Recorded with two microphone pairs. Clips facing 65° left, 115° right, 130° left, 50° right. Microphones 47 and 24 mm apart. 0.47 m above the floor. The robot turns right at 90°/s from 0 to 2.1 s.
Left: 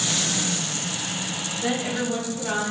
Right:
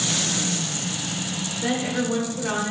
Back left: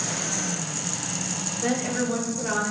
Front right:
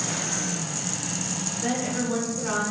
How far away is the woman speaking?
About 1.3 m.